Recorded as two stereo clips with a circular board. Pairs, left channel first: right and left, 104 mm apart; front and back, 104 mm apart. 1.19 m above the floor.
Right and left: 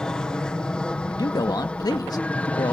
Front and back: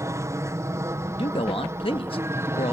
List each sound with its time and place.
0.0 s an aircraft: 165° right; by 2.7 s 155° right
1.2 s a man speaking: 35° right